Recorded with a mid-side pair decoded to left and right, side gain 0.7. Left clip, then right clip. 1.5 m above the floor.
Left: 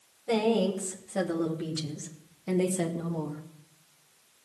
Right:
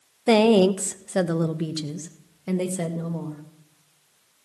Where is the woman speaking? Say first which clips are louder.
Right 9 dB; 65° right, 1.1 m; by 3.4 s 10° right, 2 m.